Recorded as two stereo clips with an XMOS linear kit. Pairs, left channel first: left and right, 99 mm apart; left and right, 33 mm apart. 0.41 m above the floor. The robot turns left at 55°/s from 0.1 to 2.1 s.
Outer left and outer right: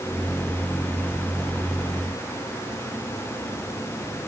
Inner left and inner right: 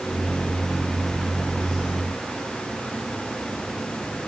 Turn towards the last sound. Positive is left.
No sound to turn to.